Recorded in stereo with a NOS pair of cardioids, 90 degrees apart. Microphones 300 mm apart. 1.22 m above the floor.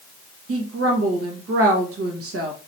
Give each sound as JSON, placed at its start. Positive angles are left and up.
{"t": 0.5, "sound": "a woman speaking", "azimuth_deg": -50, "distance_m": 1.3}